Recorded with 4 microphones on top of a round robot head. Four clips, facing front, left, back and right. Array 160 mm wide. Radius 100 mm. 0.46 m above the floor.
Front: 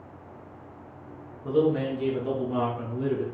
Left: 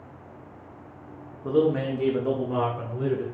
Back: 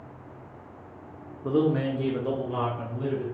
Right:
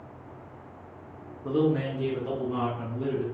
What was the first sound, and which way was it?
A man speaking, 150° left.